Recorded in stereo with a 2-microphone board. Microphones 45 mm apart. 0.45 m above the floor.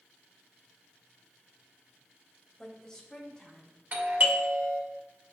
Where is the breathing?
I don't hear breathing.